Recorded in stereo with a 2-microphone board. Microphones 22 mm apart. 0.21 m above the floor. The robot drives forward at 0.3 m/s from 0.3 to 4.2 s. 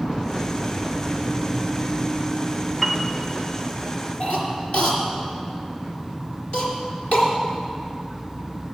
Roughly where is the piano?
Centre.